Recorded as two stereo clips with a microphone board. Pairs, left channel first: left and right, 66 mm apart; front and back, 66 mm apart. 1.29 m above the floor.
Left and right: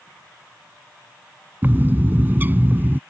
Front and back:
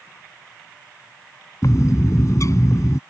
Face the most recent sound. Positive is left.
turn(degrees=-30)